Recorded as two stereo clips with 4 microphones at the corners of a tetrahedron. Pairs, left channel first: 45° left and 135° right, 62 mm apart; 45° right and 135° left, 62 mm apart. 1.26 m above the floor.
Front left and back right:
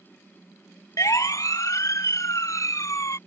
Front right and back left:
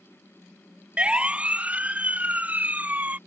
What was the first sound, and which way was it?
A siren, 65° left.